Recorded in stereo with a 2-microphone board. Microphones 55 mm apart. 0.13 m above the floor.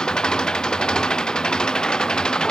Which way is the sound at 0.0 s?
15° left (ahead or behind).